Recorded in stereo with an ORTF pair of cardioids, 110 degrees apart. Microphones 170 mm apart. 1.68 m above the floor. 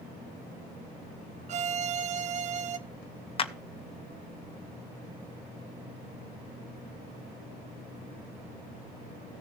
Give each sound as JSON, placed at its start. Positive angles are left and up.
{"t": 1.5, "sound": "a violin", "azimuth_deg": -45, "distance_m": 0.7}
{"t": 3.4, "sound": "a clap", "azimuth_deg": 35, "distance_m": 0.9}